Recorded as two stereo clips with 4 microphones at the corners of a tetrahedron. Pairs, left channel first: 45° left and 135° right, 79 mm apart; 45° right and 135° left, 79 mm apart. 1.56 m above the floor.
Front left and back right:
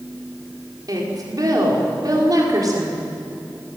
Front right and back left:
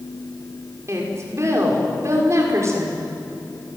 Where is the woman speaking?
175° right, 5.5 m.